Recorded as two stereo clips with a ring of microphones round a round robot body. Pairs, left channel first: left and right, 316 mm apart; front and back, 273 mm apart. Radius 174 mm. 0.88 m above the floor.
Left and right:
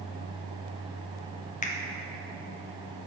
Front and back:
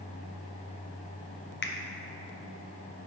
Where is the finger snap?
30° left, 0.9 m.